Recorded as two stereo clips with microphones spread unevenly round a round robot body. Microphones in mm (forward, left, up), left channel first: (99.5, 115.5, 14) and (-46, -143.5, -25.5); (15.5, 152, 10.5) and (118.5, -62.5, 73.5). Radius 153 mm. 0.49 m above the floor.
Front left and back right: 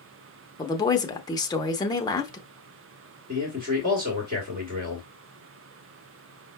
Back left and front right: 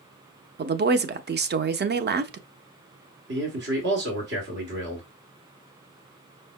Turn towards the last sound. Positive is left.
turn(degrees=-100)